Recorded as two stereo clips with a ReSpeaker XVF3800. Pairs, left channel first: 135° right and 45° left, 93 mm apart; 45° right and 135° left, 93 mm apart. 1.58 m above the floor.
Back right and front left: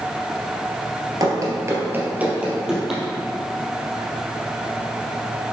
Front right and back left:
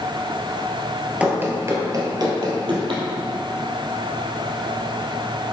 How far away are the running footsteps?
About 2 m.